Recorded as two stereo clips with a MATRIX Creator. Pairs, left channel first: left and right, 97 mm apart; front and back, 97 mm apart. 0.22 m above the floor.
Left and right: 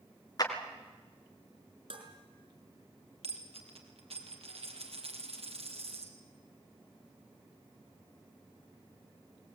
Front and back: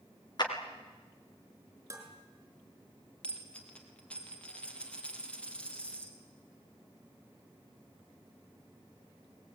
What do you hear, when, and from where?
0.4 s a clap: 45° left, 3 m
1.9 s dishes clattering: 115° right, 4.5 m
3.2 s a dropped coin: 75° right, 3 m